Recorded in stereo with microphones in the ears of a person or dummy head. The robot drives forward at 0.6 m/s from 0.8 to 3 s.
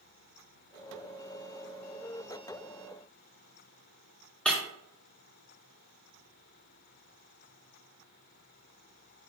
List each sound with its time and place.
4.5 s breaking glass: 5° left (ahead or behind), 2.0 m